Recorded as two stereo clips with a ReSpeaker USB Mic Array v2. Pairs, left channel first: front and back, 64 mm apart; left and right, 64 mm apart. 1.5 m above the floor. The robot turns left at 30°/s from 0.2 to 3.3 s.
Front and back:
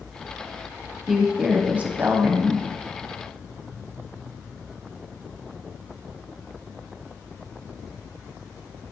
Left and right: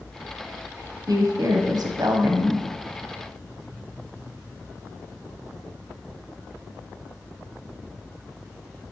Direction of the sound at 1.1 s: 90° right.